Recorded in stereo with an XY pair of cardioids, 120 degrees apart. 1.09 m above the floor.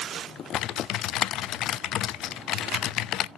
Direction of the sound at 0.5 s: 70° left.